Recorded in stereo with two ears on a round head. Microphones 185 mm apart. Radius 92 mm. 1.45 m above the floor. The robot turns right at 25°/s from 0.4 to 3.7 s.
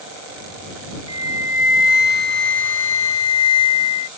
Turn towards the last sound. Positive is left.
turn(degrees=90)